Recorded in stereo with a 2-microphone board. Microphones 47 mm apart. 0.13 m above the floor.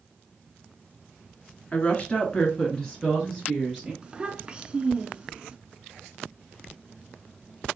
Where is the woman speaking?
30° left (ahead or behind), 1.3 m; by 3.9 s centre (ahead or behind), 1.7 m.